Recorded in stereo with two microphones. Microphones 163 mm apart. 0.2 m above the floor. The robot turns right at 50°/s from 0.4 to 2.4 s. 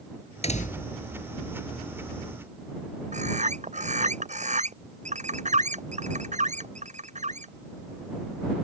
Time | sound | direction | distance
0.4 | a door slam | 40° left (ahead or behind) | ?
3.1 | a bird | 45° right (ahead or behind) | ?